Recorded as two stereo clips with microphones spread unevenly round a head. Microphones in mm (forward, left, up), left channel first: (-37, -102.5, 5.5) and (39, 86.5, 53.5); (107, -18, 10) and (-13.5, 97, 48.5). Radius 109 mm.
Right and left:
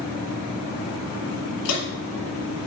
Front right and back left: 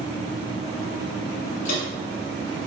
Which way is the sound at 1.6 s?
95° right.